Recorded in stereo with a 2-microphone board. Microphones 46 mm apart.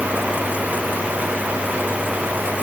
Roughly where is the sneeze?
I don't hear a sneeze.